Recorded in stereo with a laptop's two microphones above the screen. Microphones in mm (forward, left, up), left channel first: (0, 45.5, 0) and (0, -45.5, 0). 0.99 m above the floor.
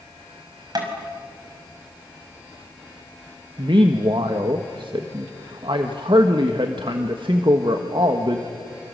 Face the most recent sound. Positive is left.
turn(degrees=-60)  # may be behind; listen again after turning